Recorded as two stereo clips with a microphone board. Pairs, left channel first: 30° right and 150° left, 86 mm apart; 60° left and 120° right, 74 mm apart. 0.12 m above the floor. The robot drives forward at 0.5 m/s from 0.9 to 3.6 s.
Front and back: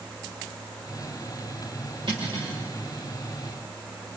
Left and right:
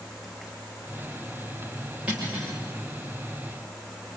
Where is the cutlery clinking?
165° left, 6.5 m.